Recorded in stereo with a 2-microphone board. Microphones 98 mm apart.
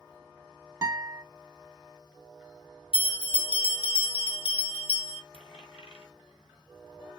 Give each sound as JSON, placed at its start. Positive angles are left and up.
{"t": 0.8, "sound": "a guitar", "side_deg": -30, "distance_m": 0.7}
{"t": 2.9, "sound": "a bell", "side_deg": 80, "distance_m": 1.3}
{"t": 5.3, "sound": "a dropped coin", "side_deg": 80, "distance_m": 1.3}